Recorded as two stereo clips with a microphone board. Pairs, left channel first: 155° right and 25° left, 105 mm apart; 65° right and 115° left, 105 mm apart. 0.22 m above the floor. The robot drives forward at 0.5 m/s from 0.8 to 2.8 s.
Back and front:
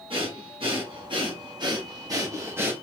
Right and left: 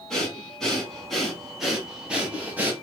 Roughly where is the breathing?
Ahead.